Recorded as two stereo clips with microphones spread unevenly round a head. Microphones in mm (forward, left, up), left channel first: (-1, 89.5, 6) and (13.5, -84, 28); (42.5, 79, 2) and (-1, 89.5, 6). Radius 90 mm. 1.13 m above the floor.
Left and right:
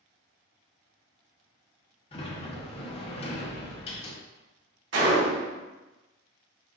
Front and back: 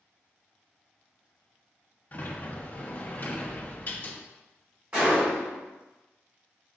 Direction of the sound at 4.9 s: 110° right.